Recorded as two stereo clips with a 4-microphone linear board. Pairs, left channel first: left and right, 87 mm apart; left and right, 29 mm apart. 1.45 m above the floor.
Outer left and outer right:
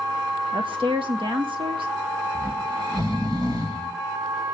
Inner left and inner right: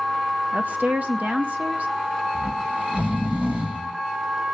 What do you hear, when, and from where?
0.5 s a woman speaking: 75° right (ahead or behind), 1.4 m
2.4 s snoring: 60° right (ahead or behind), 2.5 m